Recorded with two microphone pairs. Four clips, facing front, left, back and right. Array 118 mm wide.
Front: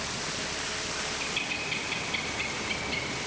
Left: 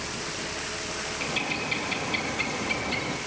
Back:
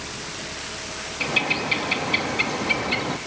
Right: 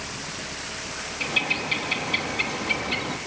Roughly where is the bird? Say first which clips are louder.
Right 4 dB, back 10 dB; behind.